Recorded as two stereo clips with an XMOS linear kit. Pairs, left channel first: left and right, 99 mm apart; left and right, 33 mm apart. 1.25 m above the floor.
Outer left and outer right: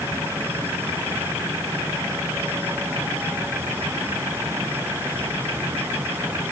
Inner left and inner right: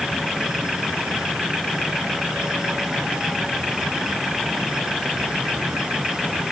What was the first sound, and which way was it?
Only background noise.